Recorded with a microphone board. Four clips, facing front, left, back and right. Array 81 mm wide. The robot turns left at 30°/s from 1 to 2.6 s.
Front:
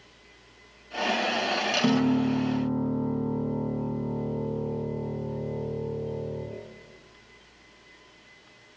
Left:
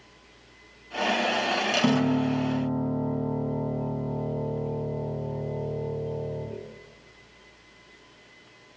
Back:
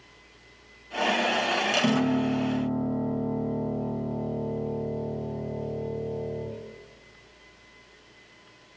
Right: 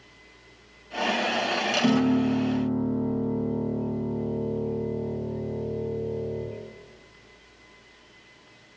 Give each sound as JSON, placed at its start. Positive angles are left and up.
{"t": 1.8, "sound": "a piano", "azimuth_deg": 75, "distance_m": 1.7}